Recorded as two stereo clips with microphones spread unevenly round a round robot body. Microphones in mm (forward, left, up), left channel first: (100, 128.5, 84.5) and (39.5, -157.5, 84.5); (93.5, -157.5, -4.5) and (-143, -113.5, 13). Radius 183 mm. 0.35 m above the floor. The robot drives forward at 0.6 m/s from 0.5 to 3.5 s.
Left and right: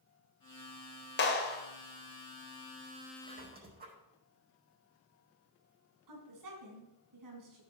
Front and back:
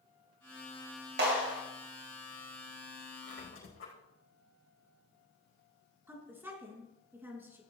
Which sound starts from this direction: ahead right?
A squeak, at 3.2 s.